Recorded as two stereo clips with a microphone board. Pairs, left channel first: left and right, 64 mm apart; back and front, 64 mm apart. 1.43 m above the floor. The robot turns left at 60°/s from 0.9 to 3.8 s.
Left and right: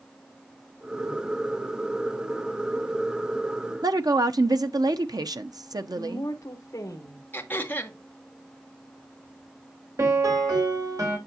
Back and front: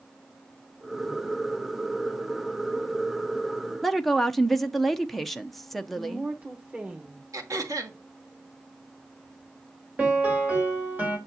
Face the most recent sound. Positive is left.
turn(degrees=-65)